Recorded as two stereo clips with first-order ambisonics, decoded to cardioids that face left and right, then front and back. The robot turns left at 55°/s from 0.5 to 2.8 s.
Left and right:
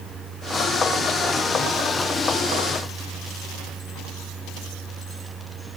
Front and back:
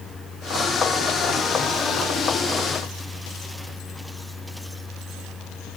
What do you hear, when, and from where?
Only background noise.